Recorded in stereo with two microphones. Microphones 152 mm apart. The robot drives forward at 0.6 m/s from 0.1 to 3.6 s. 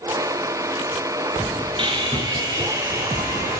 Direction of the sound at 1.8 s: 35° right (ahead or behind).